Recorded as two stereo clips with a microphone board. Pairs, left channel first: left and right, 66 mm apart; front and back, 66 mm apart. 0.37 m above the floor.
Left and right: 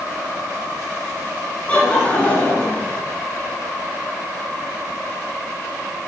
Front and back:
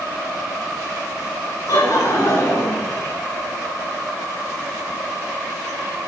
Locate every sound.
1.7 s laughter: 25° left, 4 m